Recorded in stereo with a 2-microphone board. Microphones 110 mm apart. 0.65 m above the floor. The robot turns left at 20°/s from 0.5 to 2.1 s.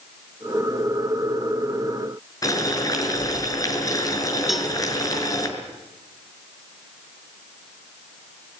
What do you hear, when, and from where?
2.4 s boiling: 35° left (ahead or behind), 5.5 m
4.5 s a cowbell: centre (ahead or behind), 2 m